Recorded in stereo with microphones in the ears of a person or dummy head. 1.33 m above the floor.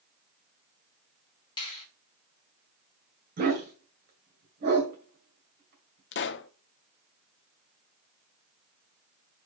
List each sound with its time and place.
1.6 s a finger snap: 20° left (ahead or behind), 2.5 m
3.4 s a dog barking: 50° right (ahead or behind), 2.5 m
6.1 s a pop: 50° left (ahead or behind), 0.5 m